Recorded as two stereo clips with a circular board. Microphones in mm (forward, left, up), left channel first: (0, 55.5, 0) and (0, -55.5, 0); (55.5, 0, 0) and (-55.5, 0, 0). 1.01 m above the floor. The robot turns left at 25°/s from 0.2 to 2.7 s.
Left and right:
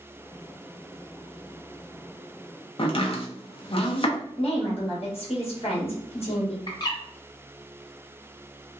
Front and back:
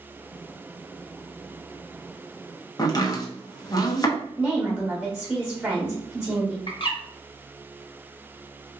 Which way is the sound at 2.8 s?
55° left.